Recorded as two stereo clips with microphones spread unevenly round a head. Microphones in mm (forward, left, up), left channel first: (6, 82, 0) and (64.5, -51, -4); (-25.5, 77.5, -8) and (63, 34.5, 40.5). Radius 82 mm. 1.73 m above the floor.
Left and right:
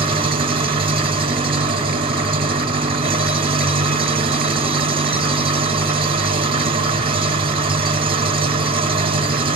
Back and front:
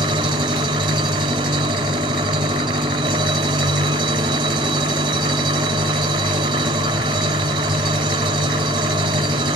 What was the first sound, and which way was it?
An engine running, 15° right.